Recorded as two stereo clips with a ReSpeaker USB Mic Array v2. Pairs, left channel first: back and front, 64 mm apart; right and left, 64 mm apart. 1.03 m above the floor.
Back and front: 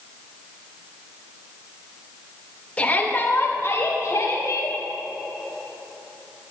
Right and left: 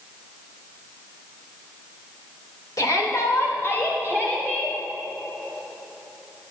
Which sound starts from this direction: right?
A shout, at 2.8 s.